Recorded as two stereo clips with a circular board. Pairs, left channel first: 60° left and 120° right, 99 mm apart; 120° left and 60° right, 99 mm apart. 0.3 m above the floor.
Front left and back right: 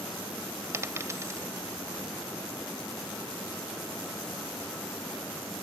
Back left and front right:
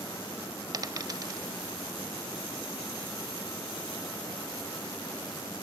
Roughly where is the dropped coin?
Right.